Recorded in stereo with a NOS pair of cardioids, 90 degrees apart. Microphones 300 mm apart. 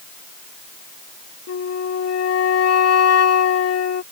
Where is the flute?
55° left.